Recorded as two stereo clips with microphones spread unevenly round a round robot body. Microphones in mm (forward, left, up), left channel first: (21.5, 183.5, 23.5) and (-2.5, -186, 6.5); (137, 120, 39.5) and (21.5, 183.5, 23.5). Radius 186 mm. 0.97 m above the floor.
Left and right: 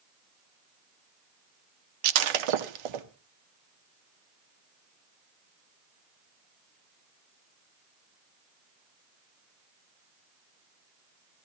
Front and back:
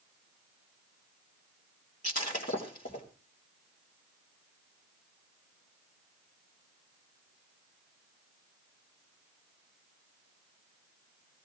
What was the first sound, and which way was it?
Breaking glass, 80° right.